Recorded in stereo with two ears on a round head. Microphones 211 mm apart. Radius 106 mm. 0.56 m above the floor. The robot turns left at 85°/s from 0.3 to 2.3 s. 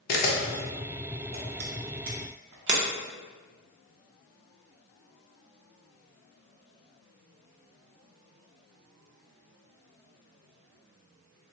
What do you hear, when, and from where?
0.1 s a camera shutter: 40° left (ahead or behind), 0.6 m; by 2.8 s 45° right (ahead or behind), 0.6 m